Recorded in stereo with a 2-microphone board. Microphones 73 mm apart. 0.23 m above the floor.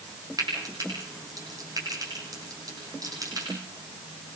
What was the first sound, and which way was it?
Frying, 55° right (ahead or behind).